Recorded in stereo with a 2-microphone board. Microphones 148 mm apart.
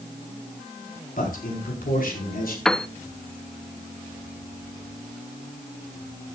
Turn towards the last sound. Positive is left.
turn(degrees=5)  # may be behind; listen again after turning